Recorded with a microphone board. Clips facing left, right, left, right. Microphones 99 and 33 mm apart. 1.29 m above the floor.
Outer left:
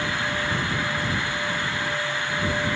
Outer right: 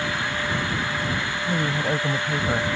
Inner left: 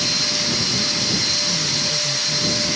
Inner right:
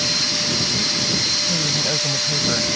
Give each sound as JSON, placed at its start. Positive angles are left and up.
{"t": 1.5, "sound": "a woman speaking", "side_deg": -85}